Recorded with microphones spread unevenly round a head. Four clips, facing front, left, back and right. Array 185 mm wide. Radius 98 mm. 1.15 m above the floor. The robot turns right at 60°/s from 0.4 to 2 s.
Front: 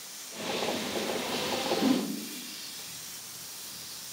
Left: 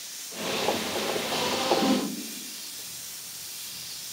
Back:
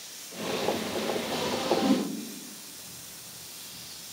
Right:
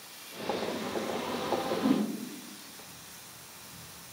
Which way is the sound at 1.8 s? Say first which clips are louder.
Even, even; 40° left.